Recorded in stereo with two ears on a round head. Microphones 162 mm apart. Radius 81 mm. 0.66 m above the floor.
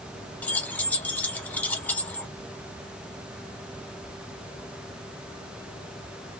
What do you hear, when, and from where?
0.4 s keys jangling: 10° left (ahead or behind), 0.6 m